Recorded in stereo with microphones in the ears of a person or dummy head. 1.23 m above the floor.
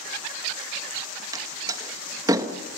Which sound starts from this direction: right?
A door slam, at 1.3 s.